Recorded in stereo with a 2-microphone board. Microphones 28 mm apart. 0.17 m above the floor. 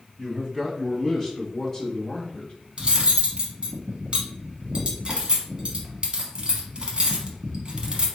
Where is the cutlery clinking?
35° right (ahead or behind), 0.8 m.